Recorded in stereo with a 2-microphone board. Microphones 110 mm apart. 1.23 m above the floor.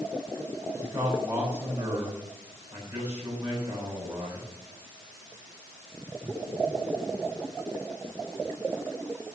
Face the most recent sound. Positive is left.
turn(degrees=-20)  # may be behind; listen again after turning